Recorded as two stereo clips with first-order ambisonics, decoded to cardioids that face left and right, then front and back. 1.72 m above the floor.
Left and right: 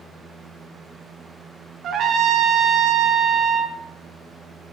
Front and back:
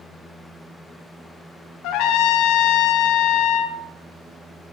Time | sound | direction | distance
1.8 | a trumpet | 30° right | 0.6 m